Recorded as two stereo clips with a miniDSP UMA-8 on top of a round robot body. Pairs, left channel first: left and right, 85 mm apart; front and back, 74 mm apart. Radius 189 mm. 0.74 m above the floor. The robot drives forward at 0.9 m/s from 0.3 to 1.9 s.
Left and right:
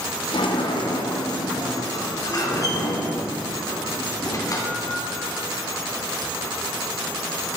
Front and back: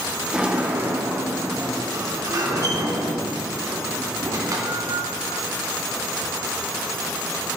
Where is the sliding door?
100° left, 1.6 m; by 5.0 s 140° left, 2.5 m.